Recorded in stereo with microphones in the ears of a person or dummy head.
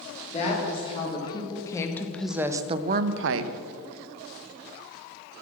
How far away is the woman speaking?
About 2 m.